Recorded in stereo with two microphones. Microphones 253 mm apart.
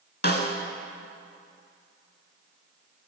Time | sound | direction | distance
0.2 | a snare drum | 40° left (ahead or behind) | 0.8 m